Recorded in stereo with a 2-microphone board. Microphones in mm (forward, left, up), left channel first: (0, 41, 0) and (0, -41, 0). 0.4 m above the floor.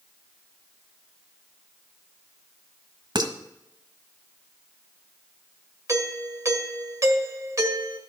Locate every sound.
3.1 s dishes clattering: 65° right (ahead or behind), 1.3 m
5.9 s a doorbell: 40° right (ahead or behind), 1.7 m